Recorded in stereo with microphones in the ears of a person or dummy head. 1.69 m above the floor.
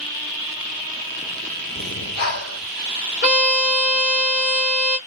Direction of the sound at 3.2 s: 35° left (ahead or behind).